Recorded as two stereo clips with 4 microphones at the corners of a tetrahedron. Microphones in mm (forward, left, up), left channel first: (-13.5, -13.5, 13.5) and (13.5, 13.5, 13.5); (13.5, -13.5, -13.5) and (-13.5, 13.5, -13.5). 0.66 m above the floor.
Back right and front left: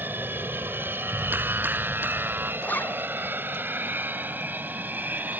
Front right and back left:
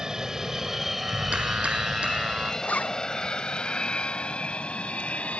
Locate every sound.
0.0 s an aircraft: 65° left; by 5.4 s 10° left
1.0 s a clap: 75° left
2.6 s a zipper: 95° right